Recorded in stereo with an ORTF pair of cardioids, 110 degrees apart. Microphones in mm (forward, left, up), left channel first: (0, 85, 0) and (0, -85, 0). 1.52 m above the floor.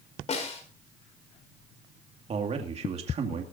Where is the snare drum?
40° left, 4.5 m.